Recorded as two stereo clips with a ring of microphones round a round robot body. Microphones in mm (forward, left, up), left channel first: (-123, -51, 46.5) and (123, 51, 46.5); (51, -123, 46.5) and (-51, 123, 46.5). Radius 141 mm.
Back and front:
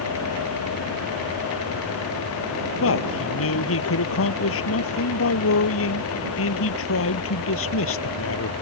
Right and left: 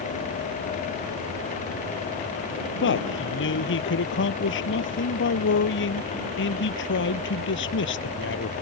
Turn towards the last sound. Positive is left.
turn(degrees=-115)